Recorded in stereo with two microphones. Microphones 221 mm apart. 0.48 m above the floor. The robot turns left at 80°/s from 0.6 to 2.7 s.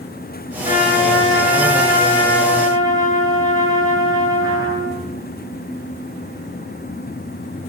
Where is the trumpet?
145° left, 5.5 m; by 5.0 s 20° right, 5.5 m.